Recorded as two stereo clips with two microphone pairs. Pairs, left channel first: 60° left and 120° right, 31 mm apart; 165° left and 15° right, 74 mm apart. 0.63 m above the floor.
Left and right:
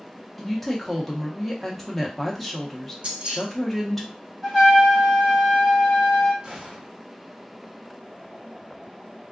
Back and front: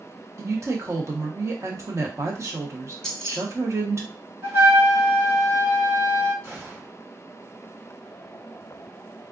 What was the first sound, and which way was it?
A woman speaking, 20° right.